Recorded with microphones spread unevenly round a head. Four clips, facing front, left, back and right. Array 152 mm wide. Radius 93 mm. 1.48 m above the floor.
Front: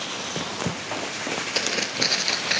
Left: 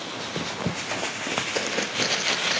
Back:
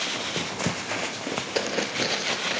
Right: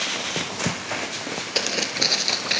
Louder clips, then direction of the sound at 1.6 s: Right 2 dB, back 2 dB; 175° right.